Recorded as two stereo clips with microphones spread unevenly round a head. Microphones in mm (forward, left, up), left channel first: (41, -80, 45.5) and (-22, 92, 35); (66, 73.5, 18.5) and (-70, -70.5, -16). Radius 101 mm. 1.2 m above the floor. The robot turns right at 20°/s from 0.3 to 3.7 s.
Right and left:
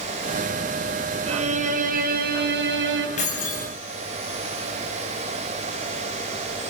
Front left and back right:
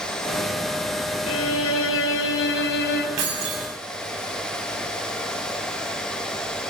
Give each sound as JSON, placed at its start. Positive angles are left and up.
{"t": 1.3, "sound": "a violin", "azimuth_deg": 50, "distance_m": 4.0}
{"t": 3.2, "sound": "keys jangling", "azimuth_deg": -125, "distance_m": 6.5}